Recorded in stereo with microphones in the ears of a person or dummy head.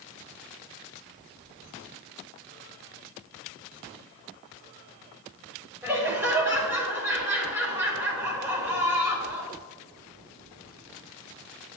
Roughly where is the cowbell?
No cowbell in this recording.